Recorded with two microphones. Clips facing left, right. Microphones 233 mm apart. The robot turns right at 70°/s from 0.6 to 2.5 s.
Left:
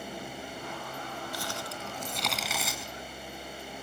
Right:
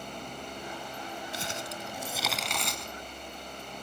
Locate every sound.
1.3 s crumpling: 25° right (ahead or behind), 1.7 m; by 2.9 s 5° left (ahead or behind), 1.7 m